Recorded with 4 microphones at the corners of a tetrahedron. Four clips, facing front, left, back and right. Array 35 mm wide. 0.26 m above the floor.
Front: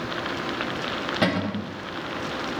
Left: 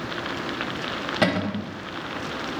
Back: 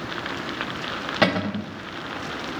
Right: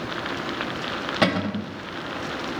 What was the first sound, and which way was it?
A cupboard door, 175° right.